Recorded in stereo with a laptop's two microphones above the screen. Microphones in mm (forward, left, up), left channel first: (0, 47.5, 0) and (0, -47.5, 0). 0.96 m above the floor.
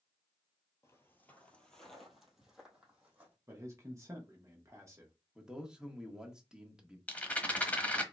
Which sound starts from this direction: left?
Footsteps, at 0.8 s.